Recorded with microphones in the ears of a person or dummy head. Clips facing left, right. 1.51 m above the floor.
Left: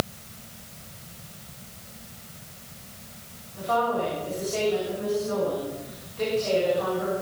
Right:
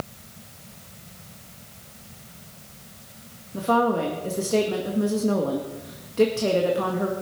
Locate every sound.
3.5 s a woman speaking: 50° right (ahead or behind), 1.7 m